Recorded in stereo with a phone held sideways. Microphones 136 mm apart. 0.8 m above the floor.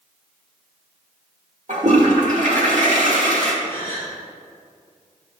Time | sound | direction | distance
1.7 | a toilet flushing | 65° right (ahead or behind) | 2 m
3.6 | a gasp | 45° right (ahead or behind) | 3.5 m